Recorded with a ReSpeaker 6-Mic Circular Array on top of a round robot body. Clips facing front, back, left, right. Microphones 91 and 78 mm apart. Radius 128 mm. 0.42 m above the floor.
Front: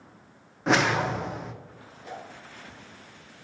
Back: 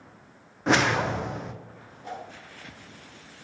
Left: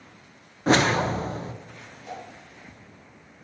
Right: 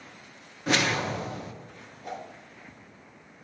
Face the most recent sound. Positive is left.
turn(degrees=-125)